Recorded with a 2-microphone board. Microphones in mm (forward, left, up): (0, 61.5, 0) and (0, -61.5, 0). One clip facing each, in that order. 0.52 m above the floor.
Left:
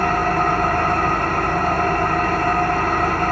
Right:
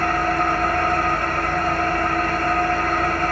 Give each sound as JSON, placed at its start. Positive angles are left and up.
{"t": 0.0, "sound": "an engine running", "side_deg": 50, "distance_m": 1.1}